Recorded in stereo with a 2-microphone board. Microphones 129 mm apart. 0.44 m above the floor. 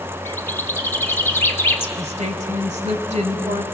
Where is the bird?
20° left (ahead or behind), 1.1 m.